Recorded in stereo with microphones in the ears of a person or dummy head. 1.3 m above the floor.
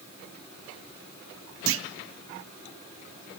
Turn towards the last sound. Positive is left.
turn(degrees=-65)  # may be behind; listen again after turning